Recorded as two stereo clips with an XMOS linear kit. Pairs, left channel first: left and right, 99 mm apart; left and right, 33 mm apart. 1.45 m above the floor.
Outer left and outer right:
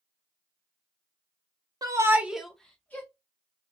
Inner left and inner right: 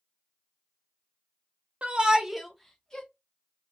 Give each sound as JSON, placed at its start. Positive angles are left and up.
{"t": 1.8, "sound": "a shout", "side_deg": -35, "distance_m": 0.6}